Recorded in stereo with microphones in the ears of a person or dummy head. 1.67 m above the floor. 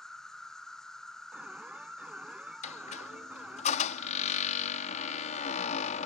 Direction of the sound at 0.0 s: 10° left (ahead or behind).